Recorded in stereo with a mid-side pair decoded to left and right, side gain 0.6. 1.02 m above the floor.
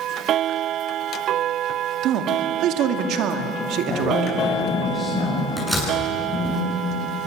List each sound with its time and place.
2.0 s a man speaking: 65° right, 2 m
3.9 s a woman speaking: 40° left, 5.5 m
5.6 s a door slam: 5° right, 8.5 m